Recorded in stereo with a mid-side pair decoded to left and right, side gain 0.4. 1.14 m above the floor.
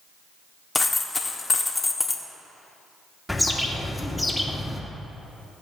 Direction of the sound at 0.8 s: 25° left.